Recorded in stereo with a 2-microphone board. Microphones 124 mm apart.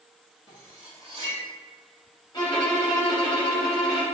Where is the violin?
40° left (ahead or behind), 1.7 m.